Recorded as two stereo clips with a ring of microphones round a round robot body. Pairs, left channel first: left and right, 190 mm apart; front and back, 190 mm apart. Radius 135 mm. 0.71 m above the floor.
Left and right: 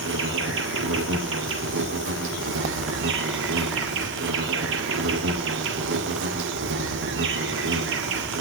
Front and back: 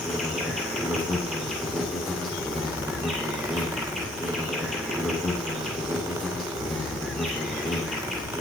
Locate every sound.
0.0 s an insect: 90° right, 2 m